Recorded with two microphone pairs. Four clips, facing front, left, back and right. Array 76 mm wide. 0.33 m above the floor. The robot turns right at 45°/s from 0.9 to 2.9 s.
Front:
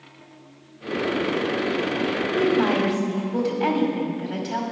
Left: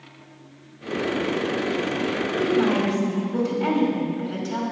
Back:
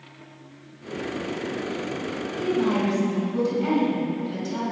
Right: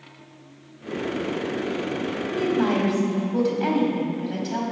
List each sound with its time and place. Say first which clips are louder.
2.4 s a woman speaking: left 1 dB, front 3 dB; 40° right, 2 m; by 4.6 s 20° right, 2 m